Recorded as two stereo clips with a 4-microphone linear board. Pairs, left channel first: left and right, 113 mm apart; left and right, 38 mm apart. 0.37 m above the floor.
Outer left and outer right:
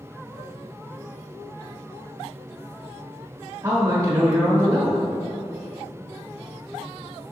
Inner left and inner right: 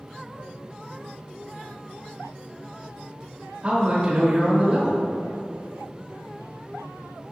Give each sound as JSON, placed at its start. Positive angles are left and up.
{"t": 3.6, "sound": "a man speaking", "side_deg": -35, "distance_m": 0.9}